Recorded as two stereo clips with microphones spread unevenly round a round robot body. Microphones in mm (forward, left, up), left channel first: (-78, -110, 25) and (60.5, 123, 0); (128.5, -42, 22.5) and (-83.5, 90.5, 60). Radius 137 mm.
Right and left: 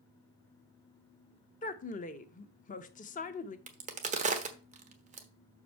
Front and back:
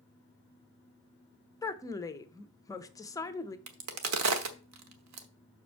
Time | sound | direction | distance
1.6 | a woman speaking | 75° right | 0.8 m
3.7 | a crack | 125° left | 1.1 m